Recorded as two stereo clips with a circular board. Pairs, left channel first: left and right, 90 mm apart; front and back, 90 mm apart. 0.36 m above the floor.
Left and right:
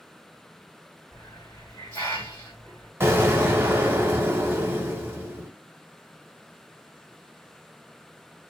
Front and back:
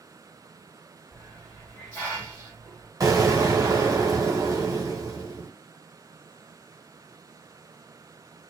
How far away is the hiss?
About 1.7 m.